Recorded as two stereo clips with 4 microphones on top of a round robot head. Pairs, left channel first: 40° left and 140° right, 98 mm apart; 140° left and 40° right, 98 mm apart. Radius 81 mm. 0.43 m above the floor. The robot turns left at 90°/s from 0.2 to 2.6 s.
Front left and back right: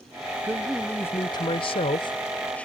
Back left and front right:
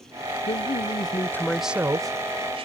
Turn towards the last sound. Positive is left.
turn(degrees=-40)